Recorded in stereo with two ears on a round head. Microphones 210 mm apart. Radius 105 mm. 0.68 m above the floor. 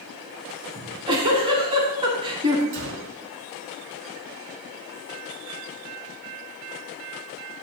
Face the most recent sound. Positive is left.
turn(degrees=-55)  # may be behind; listen again after turning